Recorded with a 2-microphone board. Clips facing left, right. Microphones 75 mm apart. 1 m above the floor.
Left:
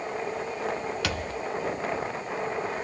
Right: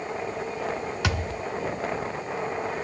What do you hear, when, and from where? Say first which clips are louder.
1.0 s a thud: right 2 dB; 20° right (ahead or behind), 1.2 m